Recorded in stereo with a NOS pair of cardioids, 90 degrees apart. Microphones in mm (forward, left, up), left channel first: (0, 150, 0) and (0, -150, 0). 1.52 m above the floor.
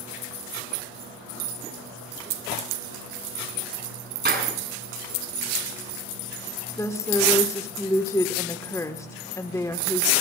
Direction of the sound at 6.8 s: 10° left.